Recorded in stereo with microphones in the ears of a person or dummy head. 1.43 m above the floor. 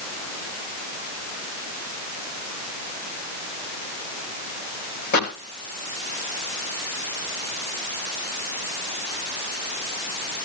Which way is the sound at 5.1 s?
50° left (ahead or behind).